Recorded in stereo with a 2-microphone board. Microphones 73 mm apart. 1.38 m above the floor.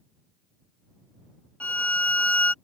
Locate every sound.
1.6 s a violin: 15° left (ahead or behind)